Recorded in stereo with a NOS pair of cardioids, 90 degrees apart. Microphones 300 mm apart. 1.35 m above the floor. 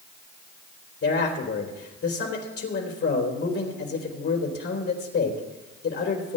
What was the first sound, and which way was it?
A man speaking, 50° left.